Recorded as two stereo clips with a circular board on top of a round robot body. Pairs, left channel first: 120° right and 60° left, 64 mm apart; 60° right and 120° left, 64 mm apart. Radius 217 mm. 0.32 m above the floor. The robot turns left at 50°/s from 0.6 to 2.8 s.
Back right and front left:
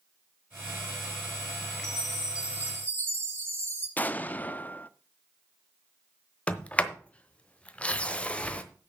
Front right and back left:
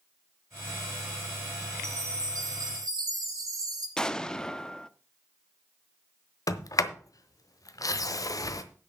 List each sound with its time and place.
1.8 s a chime: 160° left, 5.5 m; by 3.9 s 115° left, 5.5 m
4.0 s an explosion: 125° right, 1.0 m
6.5 s a sliding door: 50° right, 1.1 m